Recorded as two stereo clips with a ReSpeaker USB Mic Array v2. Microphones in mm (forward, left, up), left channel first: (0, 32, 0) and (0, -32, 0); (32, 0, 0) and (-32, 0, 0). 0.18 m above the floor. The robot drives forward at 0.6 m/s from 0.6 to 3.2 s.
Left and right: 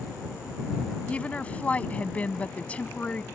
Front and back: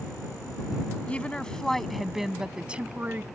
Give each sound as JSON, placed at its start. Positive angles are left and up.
{"t": 1.1, "sound": "a woman speaking", "azimuth_deg": 45}